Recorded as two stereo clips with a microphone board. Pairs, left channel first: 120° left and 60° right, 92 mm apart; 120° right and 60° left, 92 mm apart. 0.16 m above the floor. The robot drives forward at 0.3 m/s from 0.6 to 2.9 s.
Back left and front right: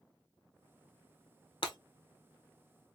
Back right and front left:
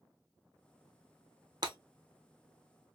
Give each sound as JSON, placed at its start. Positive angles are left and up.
{"t": 1.6, "sound": "breaking glass", "azimuth_deg": 100, "distance_m": 0.9}